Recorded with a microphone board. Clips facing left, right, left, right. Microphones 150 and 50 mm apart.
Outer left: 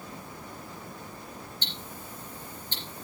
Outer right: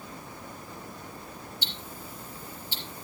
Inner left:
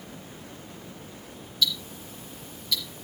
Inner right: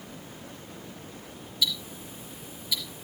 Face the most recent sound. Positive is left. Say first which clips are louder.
# even, inner left 2 dB
turn(degrees=-10)  # may be behind; listen again after turning